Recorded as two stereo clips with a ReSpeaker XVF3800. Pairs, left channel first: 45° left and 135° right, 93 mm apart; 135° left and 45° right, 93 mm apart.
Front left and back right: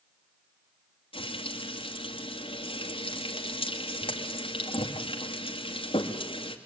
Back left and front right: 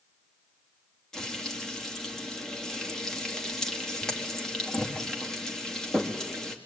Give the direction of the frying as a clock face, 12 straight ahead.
10 o'clock.